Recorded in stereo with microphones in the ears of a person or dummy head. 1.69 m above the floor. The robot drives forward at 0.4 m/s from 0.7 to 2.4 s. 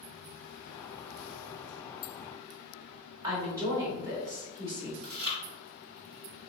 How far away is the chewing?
About 1.0 m.